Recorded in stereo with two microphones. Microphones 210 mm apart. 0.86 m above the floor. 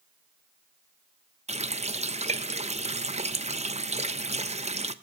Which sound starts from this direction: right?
A running tap, at 1.5 s.